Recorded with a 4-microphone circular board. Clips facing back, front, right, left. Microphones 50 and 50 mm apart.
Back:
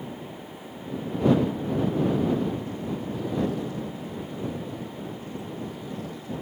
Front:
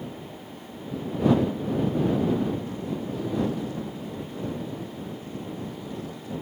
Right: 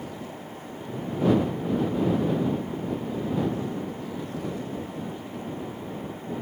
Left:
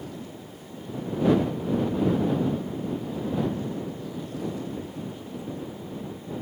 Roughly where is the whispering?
No whispering in this recording.